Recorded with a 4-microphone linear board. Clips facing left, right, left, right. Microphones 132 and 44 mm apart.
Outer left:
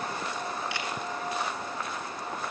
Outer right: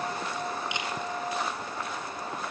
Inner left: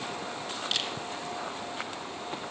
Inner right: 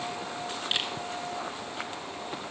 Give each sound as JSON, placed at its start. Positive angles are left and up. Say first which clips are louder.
{"t": 0.7, "sound": "a camera shutter", "louder": "even, inner right 2 dB", "side_deg": -20, "distance_m": 1.3}